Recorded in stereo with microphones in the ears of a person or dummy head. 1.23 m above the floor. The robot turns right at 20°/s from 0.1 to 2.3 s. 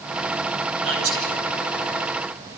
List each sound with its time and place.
0.8 s a man speaking: 75° right (ahead or behind), 9.5 m; by 1.3 s 85° right, 9.5 m